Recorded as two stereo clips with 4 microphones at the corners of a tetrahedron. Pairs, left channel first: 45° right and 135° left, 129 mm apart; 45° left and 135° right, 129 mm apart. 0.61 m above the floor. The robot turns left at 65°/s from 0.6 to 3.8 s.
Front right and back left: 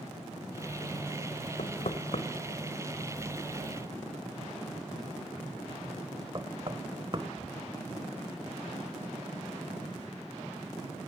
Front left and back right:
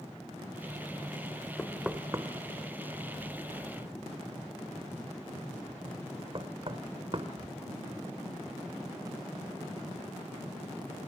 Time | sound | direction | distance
1.6 | knocking | 35° right | 1.9 m